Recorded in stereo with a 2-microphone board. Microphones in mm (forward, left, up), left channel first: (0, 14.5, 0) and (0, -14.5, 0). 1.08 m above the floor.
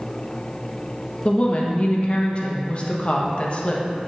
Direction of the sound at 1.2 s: 40° left (ahead or behind).